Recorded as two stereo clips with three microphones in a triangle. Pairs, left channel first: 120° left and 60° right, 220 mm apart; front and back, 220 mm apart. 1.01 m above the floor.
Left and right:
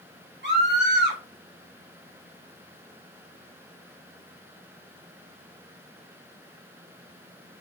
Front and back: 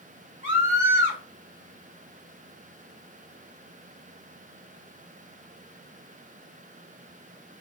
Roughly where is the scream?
Ahead right.